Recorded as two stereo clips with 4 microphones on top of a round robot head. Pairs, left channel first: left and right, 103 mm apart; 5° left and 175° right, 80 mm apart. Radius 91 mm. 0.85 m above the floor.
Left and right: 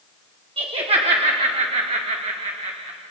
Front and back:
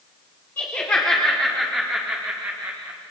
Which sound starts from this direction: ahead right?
Laughter, at 0.6 s.